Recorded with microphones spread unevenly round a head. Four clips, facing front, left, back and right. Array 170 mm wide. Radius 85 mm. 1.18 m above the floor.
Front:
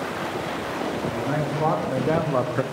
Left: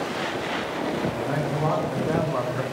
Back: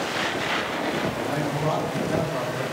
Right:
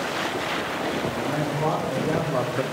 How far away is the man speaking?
About 2.5 m.